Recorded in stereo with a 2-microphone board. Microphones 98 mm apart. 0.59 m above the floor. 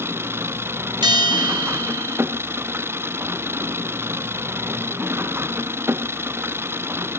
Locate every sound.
0.0 s an engine running: 25° right (ahead or behind)
1.0 s a bell: 55° right (ahead or behind)